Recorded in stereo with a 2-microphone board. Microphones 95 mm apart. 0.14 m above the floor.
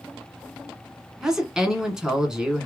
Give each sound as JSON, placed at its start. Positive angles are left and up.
{"t": 1.2, "sound": "a woman speaking", "side_deg": -5, "distance_m": 1.2}